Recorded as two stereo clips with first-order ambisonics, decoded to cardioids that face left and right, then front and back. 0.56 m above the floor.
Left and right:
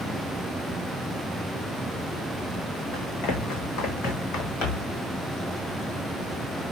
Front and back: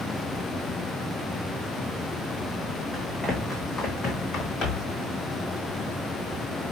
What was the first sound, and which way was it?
Running footsteps, 90° left.